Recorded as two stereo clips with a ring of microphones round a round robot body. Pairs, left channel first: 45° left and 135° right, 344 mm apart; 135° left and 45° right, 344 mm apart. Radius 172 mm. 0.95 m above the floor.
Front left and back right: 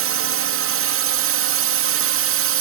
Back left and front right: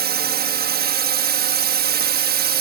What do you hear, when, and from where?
0.0 s a drone: 100° right